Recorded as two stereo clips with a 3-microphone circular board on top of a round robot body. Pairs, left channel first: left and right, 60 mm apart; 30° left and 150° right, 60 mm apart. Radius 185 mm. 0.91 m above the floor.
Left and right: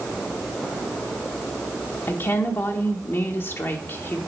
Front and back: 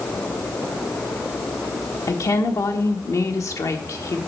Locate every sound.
2.1 s a woman speaking: 45° left, 1.5 m